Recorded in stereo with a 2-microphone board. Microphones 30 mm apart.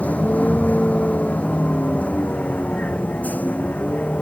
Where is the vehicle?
60° left (ahead or behind); by 4.2 s 65° left (ahead or behind).